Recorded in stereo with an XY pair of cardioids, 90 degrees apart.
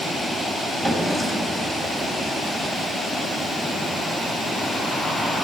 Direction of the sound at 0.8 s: 30° right.